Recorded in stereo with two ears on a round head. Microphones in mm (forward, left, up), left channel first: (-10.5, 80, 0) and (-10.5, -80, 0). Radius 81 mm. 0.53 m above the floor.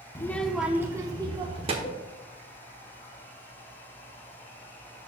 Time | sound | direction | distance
0.1 | a child speaking | 15° left (ahead or behind) | 0.5 m
1.8 | a cowbell | 30° left (ahead or behind) | 1.5 m